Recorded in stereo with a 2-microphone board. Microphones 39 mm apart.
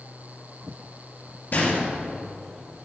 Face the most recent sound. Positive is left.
turn(degrees=50)  # may be behind; listen again after turning